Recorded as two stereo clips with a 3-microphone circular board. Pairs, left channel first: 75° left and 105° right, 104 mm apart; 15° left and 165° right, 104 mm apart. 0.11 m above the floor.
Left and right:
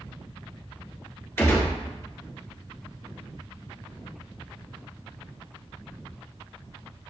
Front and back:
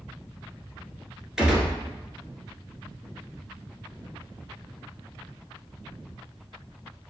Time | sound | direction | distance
1.4 | a gunshot | 120° left | 1.0 m